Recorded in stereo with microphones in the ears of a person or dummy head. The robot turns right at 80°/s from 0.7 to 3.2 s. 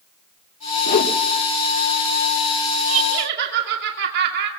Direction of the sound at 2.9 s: 85° right.